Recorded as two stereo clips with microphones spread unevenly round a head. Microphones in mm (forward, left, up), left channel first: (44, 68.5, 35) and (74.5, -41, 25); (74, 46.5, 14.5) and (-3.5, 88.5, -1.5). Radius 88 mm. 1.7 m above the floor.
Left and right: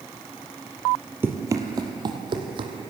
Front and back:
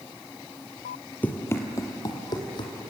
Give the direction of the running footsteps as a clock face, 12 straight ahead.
12 o'clock.